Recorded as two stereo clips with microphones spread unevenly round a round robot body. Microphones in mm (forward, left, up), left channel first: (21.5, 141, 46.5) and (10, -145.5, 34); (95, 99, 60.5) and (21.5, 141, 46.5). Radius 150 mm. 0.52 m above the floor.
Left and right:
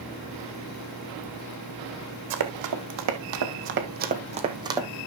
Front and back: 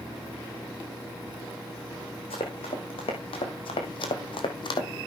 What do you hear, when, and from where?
2.3 s running footsteps: 75° right, 1.8 m; by 4.9 s 10° right, 1.6 m